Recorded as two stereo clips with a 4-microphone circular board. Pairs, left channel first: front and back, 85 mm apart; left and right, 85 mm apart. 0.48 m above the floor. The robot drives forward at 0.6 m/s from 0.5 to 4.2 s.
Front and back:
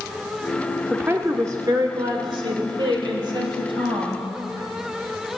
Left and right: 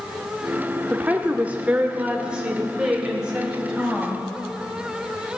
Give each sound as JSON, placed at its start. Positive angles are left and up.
{"t": 0.9, "sound": "a woman speaking", "azimuth_deg": -130, "distance_m": 0.7}